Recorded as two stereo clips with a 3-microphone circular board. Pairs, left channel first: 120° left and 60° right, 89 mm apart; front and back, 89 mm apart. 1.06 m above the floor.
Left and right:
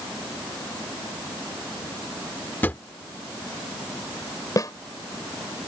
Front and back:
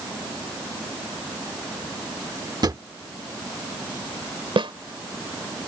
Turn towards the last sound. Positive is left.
turn(degrees=165)